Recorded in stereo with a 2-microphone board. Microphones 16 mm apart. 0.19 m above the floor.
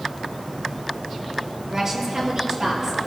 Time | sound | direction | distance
1.7 | a woman speaking | 30° right (ahead or behind) | 4 m